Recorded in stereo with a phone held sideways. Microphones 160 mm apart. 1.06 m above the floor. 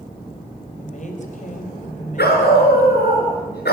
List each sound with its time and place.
0.8 s a woman speaking: 50° left (ahead or behind), 5 m
2.2 s a dog barking: 85° left, 5 m